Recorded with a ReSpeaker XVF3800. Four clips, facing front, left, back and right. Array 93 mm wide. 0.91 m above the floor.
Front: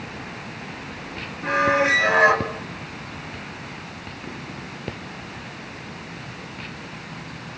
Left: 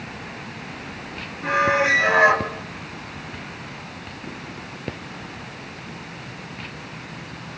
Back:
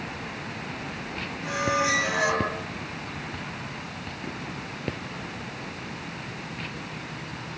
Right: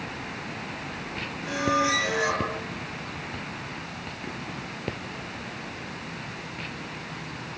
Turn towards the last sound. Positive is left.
turn(degrees=45)